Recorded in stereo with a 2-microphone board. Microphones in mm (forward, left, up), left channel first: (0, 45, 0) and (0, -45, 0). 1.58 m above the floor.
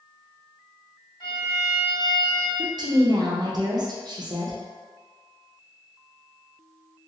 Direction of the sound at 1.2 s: 60° left (ahead or behind).